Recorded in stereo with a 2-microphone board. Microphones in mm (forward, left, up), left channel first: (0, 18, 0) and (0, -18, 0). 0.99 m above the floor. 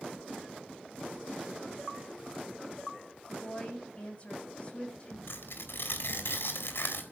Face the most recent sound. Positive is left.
turn(degrees=85)